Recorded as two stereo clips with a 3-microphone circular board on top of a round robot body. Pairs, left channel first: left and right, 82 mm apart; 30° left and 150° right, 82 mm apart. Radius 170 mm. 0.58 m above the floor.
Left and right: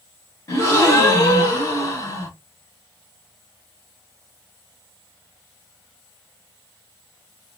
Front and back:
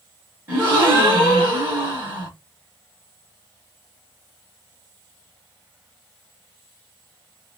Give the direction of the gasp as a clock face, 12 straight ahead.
7 o'clock.